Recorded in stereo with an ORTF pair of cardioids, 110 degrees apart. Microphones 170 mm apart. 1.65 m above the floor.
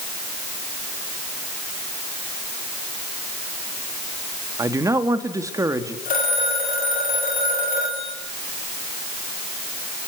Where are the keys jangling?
No keys jangling in this recording.